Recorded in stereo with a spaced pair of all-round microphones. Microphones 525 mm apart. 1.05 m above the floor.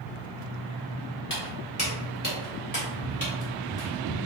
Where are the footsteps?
20° left (ahead or behind), 1.3 m; by 4.2 s 40° left (ahead or behind), 1.9 m.